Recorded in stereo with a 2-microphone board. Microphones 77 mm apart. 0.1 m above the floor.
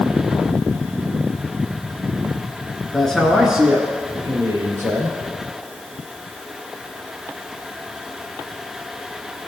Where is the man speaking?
10° left (ahead or behind), 1.5 m; by 5.2 s 45° right (ahead or behind), 1.9 m.